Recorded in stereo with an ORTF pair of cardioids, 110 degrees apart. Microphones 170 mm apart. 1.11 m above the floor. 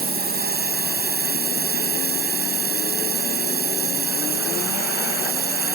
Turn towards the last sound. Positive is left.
turn(degrees=-70)